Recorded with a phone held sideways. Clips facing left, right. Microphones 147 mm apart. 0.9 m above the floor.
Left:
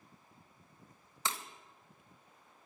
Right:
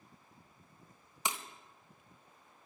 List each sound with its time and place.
1.2 s breaking glass: 15° right (ahead or behind), 0.9 m